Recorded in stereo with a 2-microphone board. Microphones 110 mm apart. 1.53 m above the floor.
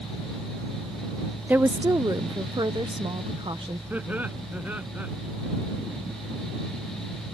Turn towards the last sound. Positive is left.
turn(degrees=-15)  # may be behind; listen again after turning